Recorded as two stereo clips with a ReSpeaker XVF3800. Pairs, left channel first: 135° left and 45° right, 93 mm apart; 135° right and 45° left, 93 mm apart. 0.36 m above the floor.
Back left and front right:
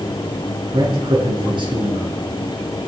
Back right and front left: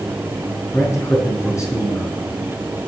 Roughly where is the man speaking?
Right.